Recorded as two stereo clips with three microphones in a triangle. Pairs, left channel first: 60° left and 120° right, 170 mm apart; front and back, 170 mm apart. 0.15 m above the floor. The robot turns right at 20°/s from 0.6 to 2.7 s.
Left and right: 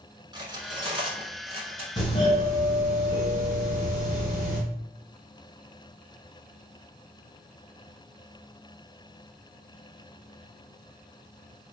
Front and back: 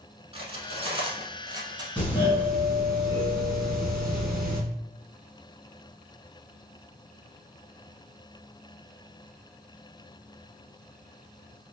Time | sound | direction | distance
0.3 | cutlery clinking | 160° right | 0.8 m
2.0 | a doorbell | 70° left | 1.7 m